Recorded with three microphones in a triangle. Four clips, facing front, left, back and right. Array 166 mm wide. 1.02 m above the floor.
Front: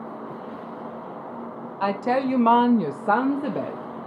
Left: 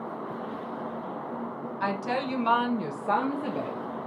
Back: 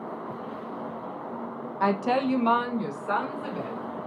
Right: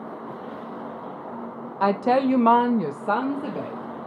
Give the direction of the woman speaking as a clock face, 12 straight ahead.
3 o'clock.